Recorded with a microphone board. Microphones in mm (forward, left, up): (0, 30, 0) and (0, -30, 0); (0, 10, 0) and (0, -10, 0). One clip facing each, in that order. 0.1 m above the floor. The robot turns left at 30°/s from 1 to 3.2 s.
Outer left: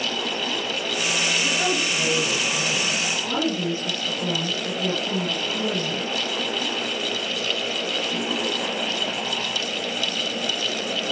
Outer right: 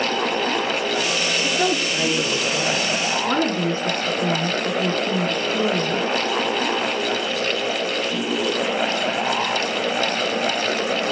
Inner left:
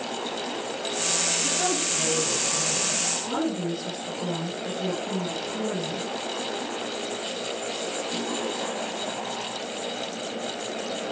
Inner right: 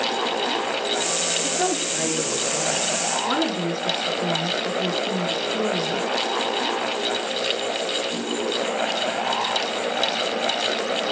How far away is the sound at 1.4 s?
About 7 m.